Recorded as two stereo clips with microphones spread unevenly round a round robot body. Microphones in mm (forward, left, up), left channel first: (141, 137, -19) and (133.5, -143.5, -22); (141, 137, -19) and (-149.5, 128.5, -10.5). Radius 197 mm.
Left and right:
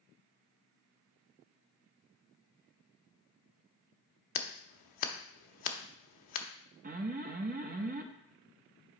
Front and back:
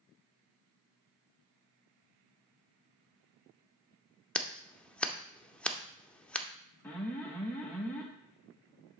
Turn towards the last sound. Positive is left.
turn(degrees=-75)